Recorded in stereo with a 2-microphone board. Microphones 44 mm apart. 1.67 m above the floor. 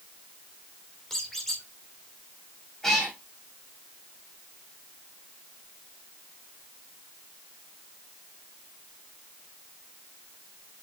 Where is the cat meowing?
10° left (ahead or behind), 5 m.